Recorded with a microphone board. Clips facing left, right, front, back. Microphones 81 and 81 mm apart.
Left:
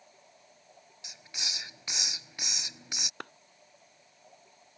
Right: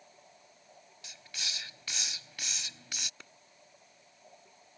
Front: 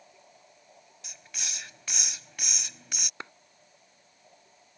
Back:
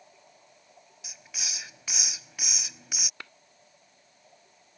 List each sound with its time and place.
1.0 s a hiss: 105° left
3.2 s a clap: 65° left